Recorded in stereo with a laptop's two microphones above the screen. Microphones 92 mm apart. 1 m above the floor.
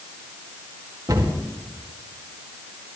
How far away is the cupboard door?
About 2.0 m.